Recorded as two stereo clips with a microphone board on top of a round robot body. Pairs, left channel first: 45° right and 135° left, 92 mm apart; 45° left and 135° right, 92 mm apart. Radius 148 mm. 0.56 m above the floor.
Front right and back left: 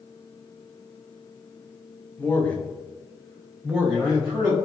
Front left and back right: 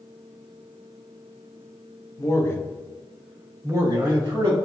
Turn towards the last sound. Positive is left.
turn(degrees=-150)